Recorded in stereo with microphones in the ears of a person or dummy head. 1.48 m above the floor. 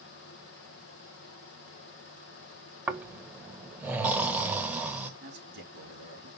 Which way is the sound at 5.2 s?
65° right (ahead or behind).